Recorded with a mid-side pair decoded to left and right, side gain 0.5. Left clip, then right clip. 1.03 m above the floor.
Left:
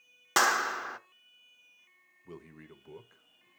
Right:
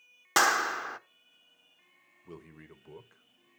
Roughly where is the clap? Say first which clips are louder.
Right 1 dB; ahead.